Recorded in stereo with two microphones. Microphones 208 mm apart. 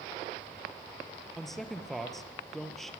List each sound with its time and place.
1.4 s a man speaking: centre (ahead or behind), 3 m